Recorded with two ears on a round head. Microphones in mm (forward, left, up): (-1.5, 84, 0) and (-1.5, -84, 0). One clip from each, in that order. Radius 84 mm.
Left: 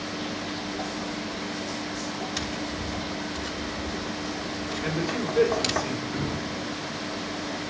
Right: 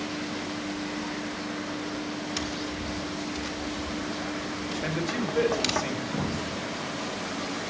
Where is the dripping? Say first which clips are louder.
Left 1 dB; 55° right (ahead or behind), 6 m.